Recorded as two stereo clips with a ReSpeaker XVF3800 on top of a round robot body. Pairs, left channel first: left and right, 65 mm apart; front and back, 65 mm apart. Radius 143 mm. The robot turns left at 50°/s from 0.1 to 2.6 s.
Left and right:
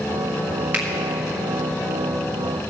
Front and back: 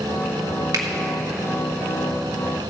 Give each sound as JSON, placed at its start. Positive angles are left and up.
{"t": 0.7, "sound": "a finger snap", "azimuth_deg": -155, "distance_m": 1.6}